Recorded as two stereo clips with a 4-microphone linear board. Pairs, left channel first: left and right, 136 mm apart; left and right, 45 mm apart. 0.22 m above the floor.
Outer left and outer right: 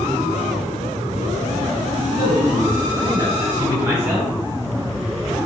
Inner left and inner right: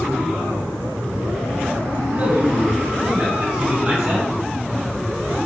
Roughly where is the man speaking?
Right.